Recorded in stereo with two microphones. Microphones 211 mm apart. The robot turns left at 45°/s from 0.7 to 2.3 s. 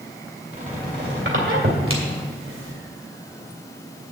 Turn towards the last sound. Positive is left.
turn(degrees=-75)  # may be behind; listen again after turning